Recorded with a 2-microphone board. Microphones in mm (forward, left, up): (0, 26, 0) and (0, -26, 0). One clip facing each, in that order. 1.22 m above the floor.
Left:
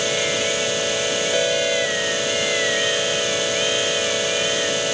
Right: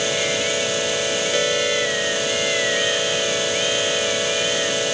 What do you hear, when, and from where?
Only background noise.